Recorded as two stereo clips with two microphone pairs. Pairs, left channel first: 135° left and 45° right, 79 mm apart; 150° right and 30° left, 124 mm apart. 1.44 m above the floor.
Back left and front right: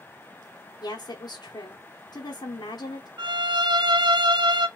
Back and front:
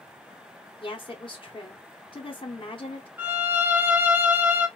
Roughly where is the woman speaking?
Behind.